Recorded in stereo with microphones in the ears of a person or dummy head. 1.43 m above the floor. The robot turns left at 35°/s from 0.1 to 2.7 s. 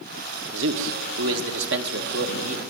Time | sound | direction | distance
0.5 | a man speaking | 60° right | 1.4 m